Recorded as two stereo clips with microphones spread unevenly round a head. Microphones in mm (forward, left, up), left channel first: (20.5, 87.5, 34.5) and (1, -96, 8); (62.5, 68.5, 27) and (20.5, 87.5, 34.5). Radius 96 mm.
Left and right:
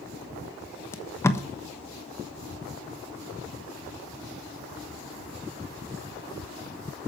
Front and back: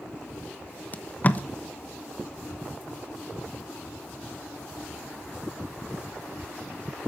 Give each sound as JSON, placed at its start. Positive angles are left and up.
{"t": 0.9, "sound": "tape being pulled", "azimuth_deg": 5, "distance_m": 1.2}